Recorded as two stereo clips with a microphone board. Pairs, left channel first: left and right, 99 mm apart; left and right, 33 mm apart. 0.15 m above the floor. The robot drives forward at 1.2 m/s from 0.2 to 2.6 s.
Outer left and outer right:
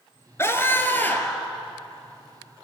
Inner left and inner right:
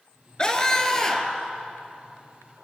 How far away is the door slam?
No door slam in this recording.